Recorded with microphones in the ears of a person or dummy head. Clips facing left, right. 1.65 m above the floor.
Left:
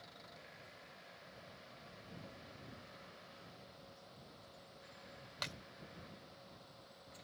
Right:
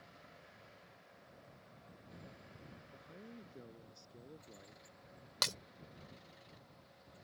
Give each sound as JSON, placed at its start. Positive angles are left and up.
{"t": 2.9, "sound": "a man speaking", "side_deg": -85}
{"t": 5.4, "sound": "breaking glass", "side_deg": -75}